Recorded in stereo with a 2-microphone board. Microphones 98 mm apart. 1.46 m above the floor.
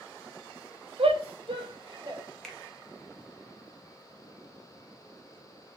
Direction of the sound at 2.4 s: 5° left (ahead or behind).